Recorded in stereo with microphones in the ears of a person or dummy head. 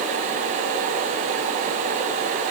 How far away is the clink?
No clink in this recording.